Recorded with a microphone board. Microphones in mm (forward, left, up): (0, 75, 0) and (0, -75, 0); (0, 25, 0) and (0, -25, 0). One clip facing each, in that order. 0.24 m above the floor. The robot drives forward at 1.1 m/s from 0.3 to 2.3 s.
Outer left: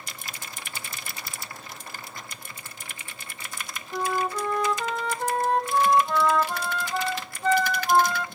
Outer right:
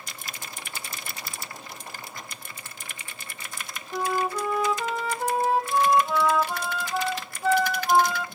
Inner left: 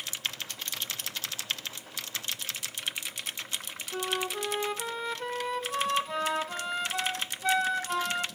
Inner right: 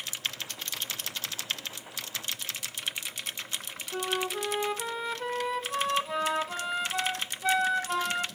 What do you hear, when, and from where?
3.9 s a flute: 5° right (ahead or behind), 0.9 m